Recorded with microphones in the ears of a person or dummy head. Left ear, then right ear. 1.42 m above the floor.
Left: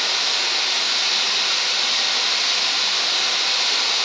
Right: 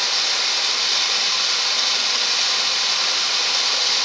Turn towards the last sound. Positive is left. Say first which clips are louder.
# even
turn(degrees=-80)